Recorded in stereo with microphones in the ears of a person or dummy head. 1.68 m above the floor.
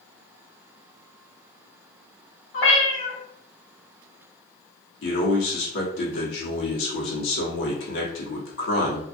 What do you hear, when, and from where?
2.5 s a cat meowing: 40° left (ahead or behind), 1.7 m
5.0 s a man speaking: 85° left, 1.0 m